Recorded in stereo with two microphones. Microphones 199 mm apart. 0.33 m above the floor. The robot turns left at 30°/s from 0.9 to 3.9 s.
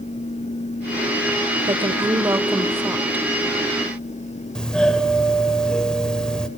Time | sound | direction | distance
1.7 | a woman speaking | 25° right (ahead or behind) | 1.2 m
4.5 | a doorbell | 5° left (ahead or behind) | 1.4 m